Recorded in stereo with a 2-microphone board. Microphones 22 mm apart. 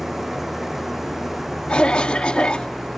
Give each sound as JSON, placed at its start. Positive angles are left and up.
{"t": 0.0, "sound": "an engine running", "side_deg": -15}
{"t": 1.7, "sound": "a cough", "side_deg": 65}